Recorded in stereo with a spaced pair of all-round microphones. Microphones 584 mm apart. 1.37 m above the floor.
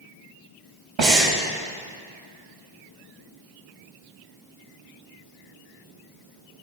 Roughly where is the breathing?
Right.